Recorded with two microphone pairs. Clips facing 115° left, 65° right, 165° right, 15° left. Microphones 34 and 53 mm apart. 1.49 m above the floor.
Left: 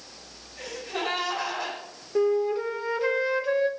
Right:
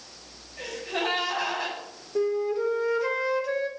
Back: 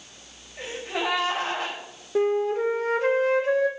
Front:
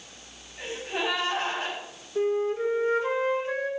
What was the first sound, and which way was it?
A gasp, 150° right.